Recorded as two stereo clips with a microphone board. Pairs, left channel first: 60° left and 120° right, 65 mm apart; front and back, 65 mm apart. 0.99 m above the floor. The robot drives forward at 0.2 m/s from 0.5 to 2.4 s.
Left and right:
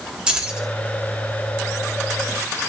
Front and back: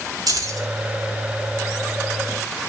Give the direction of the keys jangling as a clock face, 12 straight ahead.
6 o'clock.